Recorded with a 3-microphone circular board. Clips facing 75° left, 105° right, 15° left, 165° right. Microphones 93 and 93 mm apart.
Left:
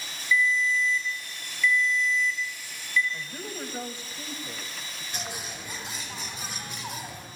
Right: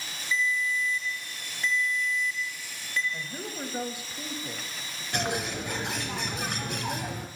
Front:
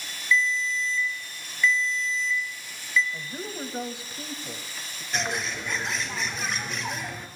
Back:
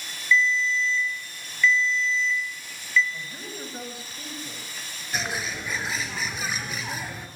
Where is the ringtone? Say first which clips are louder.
Left 4 dB, back 3 dB; 60° right, 4 m.